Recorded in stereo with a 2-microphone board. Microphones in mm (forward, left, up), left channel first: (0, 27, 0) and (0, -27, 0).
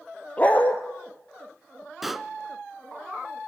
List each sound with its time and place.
0.4 s a dog barking: 30° left (ahead or behind), 1.9 m
2.0 s a pop: 5° right (ahead or behind), 0.8 m